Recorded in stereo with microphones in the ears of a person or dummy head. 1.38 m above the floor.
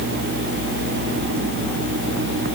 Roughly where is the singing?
No singing in this recording.